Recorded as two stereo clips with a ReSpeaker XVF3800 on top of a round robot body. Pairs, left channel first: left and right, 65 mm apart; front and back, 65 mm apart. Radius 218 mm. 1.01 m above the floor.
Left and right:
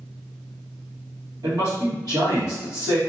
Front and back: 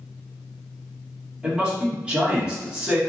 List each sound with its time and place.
1.4 s a man speaking: 105° right, 1.6 m